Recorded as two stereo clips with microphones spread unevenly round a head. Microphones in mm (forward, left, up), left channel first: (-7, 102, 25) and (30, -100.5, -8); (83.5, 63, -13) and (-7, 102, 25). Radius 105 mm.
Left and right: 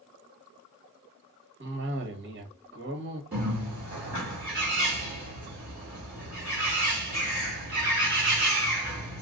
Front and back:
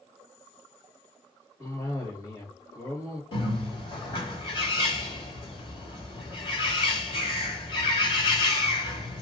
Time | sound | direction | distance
1.6 | a cough | 70° right | 1.2 m
3.3 | a bird | straight ahead | 2.5 m